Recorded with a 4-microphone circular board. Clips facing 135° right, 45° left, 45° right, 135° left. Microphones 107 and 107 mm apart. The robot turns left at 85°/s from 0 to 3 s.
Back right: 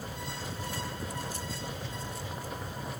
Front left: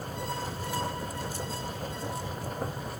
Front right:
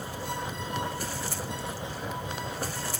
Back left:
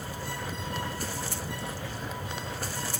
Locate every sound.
Only background noise.